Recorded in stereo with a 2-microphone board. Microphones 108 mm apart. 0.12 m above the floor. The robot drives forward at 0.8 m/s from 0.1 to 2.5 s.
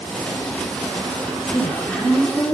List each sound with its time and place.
1.4 s a woman speaking: 5° left (ahead or behind), 6.5 m